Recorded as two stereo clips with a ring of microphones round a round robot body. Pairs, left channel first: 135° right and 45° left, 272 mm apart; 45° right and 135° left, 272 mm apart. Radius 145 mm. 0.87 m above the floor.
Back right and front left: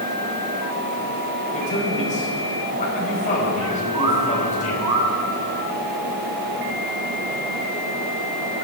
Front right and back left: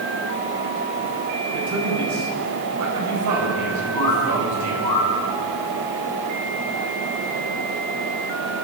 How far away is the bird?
About 6.5 m.